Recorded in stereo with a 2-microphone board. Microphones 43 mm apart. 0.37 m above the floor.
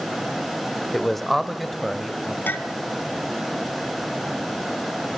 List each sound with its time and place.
0.9 s a man speaking: 10° left (ahead or behind), 0.9 m; by 2.4 s centre (ahead or behind), 2 m
2.5 s a clink: 60° left (ahead or behind), 1.5 m